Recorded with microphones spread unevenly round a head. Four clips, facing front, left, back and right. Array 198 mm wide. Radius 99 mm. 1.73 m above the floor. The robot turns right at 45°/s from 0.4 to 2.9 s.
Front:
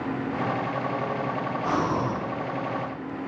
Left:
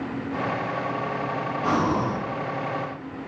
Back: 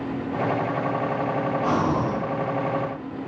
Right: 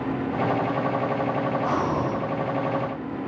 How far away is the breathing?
About 0.6 m.